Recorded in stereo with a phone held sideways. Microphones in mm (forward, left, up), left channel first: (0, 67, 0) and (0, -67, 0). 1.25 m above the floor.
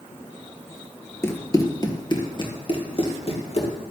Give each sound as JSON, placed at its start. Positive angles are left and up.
{"t": 1.2, "sound": "running footsteps", "side_deg": 20, "distance_m": 1.3}